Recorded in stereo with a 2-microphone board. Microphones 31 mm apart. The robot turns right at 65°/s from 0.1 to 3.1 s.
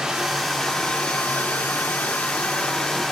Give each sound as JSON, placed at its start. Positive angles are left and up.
{"t": 0.0, "sound": "running water", "azimuth_deg": -20, "distance_m": 1.9}